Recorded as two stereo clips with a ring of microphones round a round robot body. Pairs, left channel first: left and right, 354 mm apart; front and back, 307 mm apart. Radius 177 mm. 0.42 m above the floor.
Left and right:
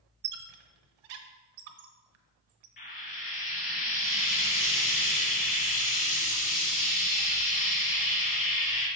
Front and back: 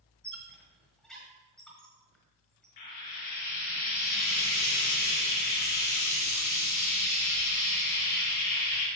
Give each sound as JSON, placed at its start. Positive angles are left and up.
{"t": 0.2, "sound": "a squeak", "azimuth_deg": -90, "distance_m": 1.0}
{"t": 2.8, "sound": "frying", "azimuth_deg": 20, "distance_m": 3.5}